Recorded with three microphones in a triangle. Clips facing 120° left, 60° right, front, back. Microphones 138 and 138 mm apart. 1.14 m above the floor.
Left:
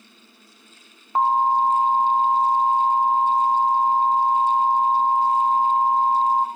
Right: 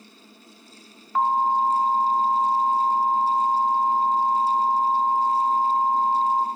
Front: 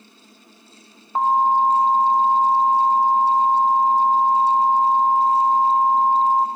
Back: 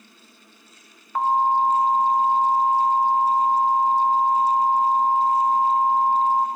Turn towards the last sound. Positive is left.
turn(degrees=60)